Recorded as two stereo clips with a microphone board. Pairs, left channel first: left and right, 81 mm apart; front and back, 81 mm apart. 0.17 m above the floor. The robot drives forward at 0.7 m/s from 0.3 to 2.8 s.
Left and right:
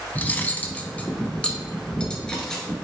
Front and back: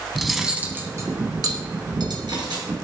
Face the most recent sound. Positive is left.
turn(degrees=170)